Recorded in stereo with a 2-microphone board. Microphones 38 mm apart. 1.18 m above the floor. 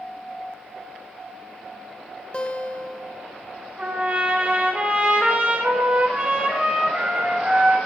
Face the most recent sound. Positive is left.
turn(degrees=-35)  # may be behind; listen again after turning